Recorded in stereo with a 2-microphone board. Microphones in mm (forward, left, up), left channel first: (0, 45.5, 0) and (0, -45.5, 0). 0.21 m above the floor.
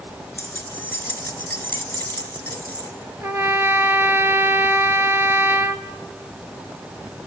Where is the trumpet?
25° right (ahead or behind), 1.1 m.